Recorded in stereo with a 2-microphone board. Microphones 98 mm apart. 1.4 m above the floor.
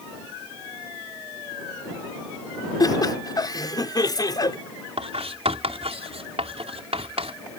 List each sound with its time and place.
2.8 s laughter: 40° left (ahead or behind)
5.0 s writing: 80° right